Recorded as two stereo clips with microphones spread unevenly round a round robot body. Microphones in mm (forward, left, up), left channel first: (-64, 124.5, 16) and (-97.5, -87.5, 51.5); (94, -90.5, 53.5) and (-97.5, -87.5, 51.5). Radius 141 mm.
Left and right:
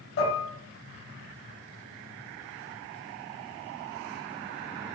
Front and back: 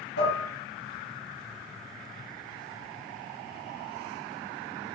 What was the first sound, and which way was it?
Dishes clattering, 35° left.